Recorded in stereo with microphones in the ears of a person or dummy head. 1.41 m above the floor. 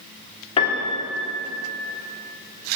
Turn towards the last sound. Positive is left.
turn(degrees=40)  # may be behind; listen again after turning